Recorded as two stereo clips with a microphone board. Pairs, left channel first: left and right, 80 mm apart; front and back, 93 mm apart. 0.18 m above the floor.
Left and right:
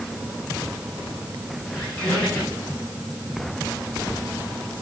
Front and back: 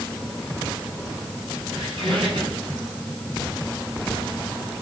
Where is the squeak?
150° left, 5 m.